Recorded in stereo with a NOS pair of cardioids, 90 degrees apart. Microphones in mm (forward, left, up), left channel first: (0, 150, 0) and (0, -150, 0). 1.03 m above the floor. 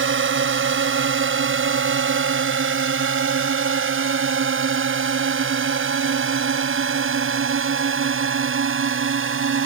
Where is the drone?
45° right; by 9.7 s 50° right.